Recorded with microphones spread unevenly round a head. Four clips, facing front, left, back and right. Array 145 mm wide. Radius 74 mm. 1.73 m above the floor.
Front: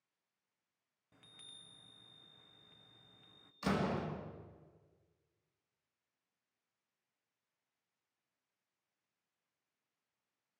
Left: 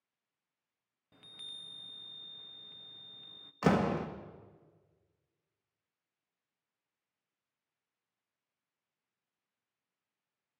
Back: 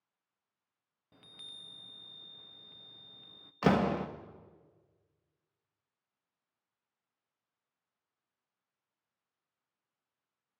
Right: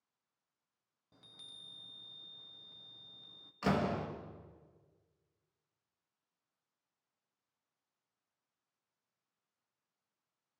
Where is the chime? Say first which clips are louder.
Left 5 dB, back 6 dB; 150° left, 0.7 m.